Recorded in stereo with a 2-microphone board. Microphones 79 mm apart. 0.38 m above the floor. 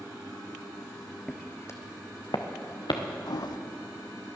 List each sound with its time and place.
1.3 s footsteps: 10° left (ahead or behind), 1.2 m; by 3.0 s 80° left, 2.5 m
3.3 s a toilet flushing: 60° left (ahead or behind), 0.6 m